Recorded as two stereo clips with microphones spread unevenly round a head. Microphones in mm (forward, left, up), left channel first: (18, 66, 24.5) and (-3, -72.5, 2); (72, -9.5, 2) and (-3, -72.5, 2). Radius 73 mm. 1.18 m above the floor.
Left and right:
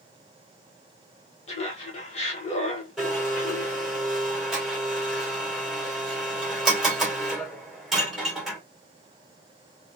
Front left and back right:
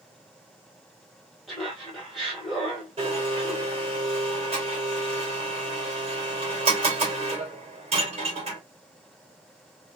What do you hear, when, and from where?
1.5 s laughter: 130° left, 1.0 m
3.0 s a blender: 170° left, 2.5 m